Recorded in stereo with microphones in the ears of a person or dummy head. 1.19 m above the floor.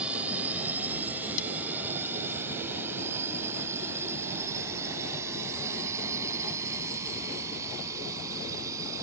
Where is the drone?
5° right (ahead or behind); by 9.0 s 20° right (ahead or behind).